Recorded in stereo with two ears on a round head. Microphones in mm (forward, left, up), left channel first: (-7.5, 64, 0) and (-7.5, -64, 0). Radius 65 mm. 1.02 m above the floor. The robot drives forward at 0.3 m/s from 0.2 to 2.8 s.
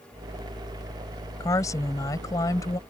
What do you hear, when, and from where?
1.4 s a woman speaking: 20° left (ahead or behind); by 2.8 s 25° left (ahead or behind)